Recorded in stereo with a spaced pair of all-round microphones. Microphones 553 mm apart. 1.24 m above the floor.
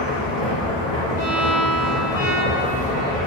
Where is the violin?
50° right (ahead or behind), 1.1 m.